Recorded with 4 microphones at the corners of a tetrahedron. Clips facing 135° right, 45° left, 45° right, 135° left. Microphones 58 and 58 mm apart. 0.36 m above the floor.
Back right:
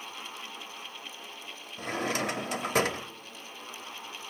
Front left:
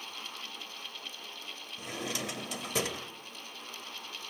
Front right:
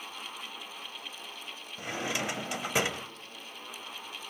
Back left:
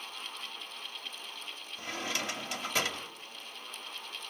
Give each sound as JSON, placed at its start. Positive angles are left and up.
{"t": 1.8, "sound": "a drawer", "azimuth_deg": -110, "distance_m": 1.1}